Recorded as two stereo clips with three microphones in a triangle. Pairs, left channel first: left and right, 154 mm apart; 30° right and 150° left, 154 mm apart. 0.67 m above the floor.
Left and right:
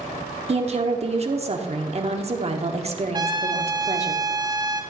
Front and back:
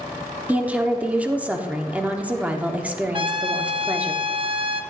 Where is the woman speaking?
130° right, 1.1 m.